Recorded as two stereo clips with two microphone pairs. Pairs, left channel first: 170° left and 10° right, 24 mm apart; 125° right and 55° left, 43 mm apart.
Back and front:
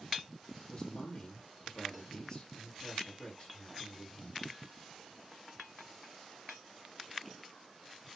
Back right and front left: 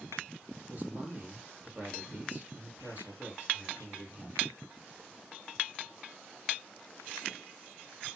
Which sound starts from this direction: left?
A man speaking, at 0.7 s.